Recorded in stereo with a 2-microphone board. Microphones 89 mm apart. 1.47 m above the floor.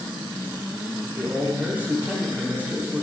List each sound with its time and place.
1.1 s a man speaking: 20° right (ahead or behind), 3.5 m